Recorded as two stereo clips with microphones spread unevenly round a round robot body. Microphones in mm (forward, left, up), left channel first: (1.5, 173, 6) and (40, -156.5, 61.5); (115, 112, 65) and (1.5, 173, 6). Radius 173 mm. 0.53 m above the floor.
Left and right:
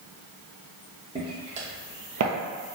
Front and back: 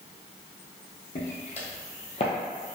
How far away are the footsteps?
About 1.7 m.